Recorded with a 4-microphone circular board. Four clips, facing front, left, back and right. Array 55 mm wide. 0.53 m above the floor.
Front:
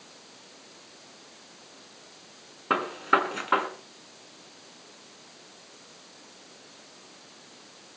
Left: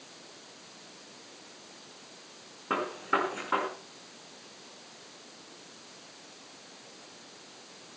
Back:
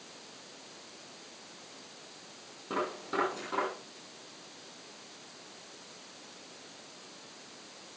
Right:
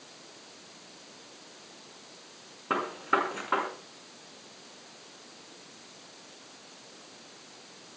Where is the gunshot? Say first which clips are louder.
Right 1 dB, front 10 dB; straight ahead, 6.5 m.